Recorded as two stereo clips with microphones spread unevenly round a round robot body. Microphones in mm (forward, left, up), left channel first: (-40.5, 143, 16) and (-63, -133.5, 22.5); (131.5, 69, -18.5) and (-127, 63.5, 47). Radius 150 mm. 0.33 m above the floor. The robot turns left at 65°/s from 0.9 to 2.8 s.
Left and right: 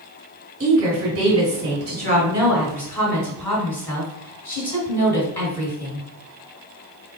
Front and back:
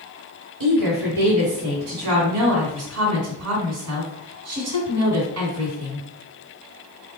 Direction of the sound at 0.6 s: 70° right.